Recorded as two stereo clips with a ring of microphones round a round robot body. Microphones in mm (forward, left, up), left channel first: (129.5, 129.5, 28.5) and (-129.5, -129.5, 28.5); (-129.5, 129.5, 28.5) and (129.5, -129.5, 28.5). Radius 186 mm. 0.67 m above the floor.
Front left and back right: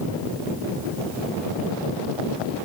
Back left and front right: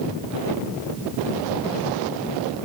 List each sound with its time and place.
Only background noise.